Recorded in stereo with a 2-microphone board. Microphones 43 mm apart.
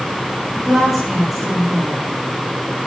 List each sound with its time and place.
0.5 s a woman speaking: 10° right (ahead or behind), 8 m